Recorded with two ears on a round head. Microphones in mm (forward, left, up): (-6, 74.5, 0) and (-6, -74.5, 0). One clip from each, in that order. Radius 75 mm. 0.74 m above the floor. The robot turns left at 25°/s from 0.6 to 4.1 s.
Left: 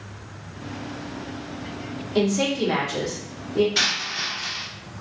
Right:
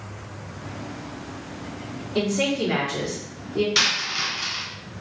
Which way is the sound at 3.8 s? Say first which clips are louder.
Right 1 dB; 55° right (ahead or behind).